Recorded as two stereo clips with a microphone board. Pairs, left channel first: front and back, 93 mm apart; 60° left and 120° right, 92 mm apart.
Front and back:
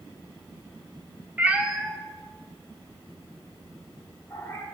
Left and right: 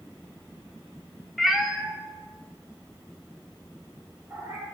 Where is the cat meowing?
150° left, 0.6 m; by 4.6 s 55° right, 1.9 m.